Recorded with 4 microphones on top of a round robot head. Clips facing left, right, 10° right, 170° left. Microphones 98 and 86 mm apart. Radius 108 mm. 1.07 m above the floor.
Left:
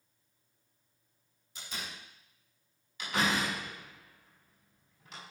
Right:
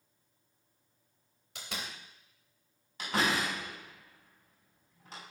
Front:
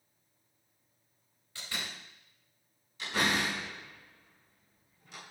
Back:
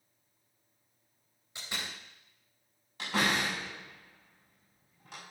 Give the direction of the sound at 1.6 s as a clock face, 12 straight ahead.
4 o'clock.